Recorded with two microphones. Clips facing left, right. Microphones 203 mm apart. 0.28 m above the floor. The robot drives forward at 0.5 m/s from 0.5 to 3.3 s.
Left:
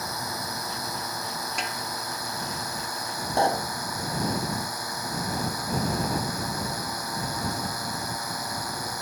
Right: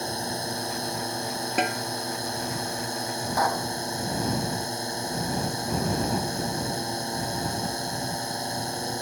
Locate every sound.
0.0 s a drone: 30° right (ahead or behind)
1.6 s a snare drum: 65° right (ahead or behind)
3.4 s a pop: 30° left (ahead or behind)